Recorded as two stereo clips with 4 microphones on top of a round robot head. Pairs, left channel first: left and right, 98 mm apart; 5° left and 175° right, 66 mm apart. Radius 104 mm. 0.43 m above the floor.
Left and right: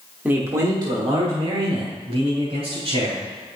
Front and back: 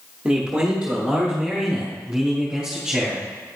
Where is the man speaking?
130° right, 1.1 m; by 3.2 s 90° right, 4 m.